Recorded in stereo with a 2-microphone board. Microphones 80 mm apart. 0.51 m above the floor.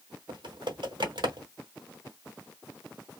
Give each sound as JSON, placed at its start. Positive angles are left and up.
{"t": 0.3, "sound": "typing on a keyboard", "side_deg": -70, "distance_m": 1.0}